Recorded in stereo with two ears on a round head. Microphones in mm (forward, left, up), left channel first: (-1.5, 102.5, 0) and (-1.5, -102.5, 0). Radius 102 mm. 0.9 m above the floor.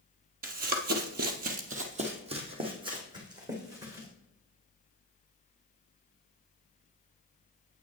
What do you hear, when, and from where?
0.4 s running footsteps: 40° right (ahead or behind), 1.2 m; by 4.1 s 15° right (ahead or behind), 3 m